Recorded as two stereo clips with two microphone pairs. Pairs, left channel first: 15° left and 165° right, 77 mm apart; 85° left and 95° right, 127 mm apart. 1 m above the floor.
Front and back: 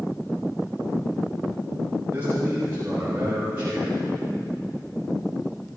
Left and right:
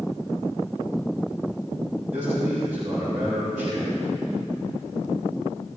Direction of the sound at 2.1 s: 105° right.